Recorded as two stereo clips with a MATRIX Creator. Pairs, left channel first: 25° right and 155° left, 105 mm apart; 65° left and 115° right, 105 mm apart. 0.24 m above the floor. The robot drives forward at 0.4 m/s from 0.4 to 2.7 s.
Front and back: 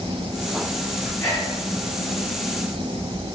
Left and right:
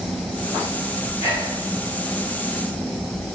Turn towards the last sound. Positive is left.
turn(degrees=-115)